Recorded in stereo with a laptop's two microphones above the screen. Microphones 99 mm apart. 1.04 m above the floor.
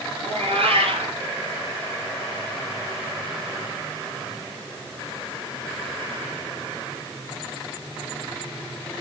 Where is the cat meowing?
80° right, 3.5 m.